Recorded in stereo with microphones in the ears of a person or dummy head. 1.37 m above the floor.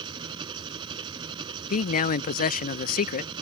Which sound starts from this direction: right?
An engine running, at 0.0 s.